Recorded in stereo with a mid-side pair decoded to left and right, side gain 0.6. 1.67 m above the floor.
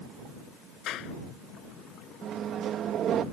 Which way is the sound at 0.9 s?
55° left.